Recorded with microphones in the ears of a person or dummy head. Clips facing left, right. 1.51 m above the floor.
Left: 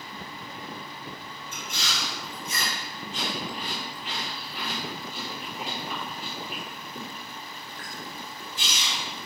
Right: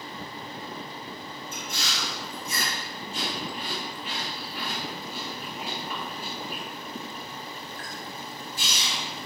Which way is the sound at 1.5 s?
45° right (ahead or behind).